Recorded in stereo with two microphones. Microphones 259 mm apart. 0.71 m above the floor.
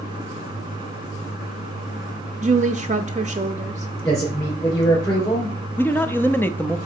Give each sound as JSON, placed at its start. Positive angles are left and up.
{"t": 2.4, "sound": "a woman speaking", "side_deg": -30, "distance_m": 0.5}
{"t": 4.0, "sound": "a man speaking", "side_deg": 10, "distance_m": 3.0}
{"t": 5.8, "sound": "a man speaking", "side_deg": 10, "distance_m": 0.5}